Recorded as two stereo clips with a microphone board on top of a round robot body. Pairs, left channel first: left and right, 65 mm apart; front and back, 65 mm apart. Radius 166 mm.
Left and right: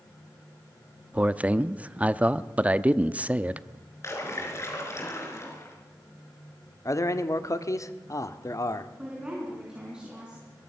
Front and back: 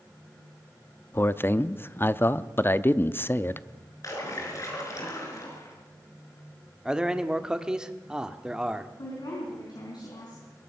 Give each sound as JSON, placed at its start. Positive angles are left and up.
{"t": 1.1, "sound": "a man speaking", "azimuth_deg": -35, "distance_m": 0.9}
{"t": 4.0, "sound": "a splash", "azimuth_deg": 45, "distance_m": 4.5}
{"t": 6.8, "sound": "a man speaking", "azimuth_deg": 105, "distance_m": 1.6}
{"t": 9.0, "sound": "a woman speaking", "azimuth_deg": -15, "distance_m": 5.0}